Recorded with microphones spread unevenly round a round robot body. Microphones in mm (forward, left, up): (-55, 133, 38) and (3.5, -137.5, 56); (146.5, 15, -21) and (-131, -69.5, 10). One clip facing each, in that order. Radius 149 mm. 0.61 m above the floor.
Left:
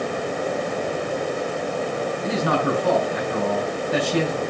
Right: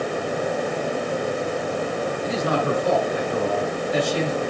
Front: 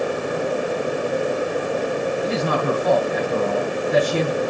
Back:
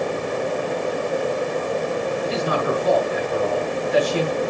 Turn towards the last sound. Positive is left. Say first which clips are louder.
# left 1 dB, front 1 dB
turn(degrees=60)